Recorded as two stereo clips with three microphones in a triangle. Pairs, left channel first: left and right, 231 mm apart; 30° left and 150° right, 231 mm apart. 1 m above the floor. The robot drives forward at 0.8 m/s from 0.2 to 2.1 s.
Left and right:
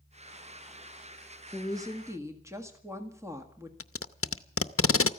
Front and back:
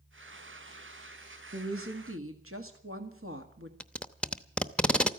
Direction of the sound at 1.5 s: 165° right.